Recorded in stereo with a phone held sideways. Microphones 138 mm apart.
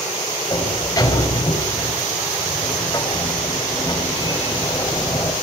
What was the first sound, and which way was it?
A sliding door, 25° left (ahead or behind).